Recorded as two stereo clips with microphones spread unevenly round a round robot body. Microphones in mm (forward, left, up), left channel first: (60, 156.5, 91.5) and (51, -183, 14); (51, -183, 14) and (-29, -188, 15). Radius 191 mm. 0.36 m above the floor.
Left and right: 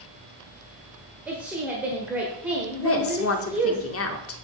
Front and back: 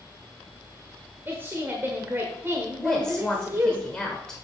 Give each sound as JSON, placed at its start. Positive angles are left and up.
{"t": 1.3, "sound": "a woman speaking", "azimuth_deg": -150, "distance_m": 1.4}
{"t": 2.8, "sound": "a woman speaking", "azimuth_deg": 75, "distance_m": 1.1}